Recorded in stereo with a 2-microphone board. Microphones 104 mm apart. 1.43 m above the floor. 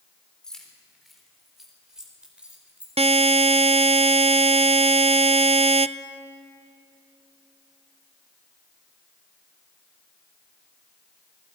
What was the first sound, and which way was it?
Keys jangling, 5° left (ahead or behind).